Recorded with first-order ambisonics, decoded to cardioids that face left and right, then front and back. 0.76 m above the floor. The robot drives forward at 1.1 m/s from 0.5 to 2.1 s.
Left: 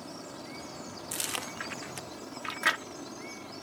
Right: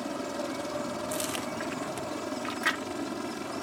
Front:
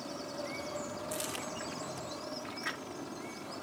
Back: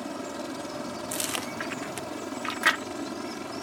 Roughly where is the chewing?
Behind.